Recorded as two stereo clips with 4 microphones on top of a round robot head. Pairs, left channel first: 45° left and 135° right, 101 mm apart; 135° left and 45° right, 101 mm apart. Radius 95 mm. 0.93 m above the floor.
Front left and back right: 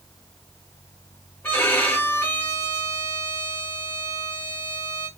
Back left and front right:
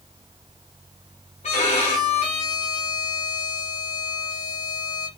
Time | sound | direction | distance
1.4 | a violin | 125° left | 1.4 m